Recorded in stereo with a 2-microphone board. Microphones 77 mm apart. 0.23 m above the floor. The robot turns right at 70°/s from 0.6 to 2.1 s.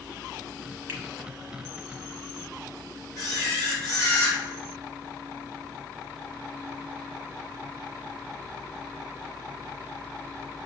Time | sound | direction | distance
0.9 | a finger snap | 30° right (ahead or behind) | 0.9 m
3.2 | a camera shutter | 50° left (ahead or behind) | 2 m